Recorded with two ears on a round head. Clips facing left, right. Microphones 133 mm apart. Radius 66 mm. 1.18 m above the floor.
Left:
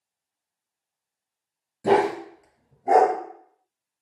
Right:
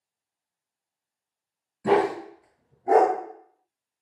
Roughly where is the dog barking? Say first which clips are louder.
Left 2 dB; left.